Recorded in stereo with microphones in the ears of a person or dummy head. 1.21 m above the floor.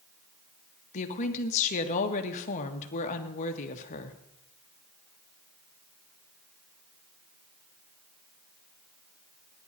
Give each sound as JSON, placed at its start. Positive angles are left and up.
{"t": 0.9, "sound": "a woman speaking", "side_deg": 40, "distance_m": 1.7}